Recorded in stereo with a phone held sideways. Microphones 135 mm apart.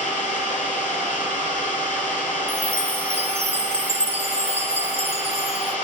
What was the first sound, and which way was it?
An engine running, 80° left.